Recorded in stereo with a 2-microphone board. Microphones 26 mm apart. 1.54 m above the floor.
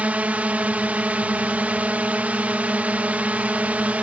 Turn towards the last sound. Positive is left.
turn(degrees=-65)  # may be behind; listen again after turning